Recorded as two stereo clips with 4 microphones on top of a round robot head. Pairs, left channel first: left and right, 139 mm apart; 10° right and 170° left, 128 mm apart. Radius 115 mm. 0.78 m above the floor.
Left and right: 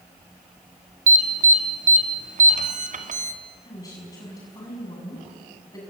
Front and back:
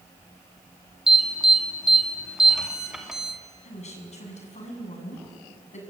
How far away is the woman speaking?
About 7 m.